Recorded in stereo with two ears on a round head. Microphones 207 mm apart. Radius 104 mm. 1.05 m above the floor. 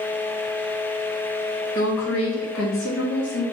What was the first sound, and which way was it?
A woman speaking, 65° left (ahead or behind).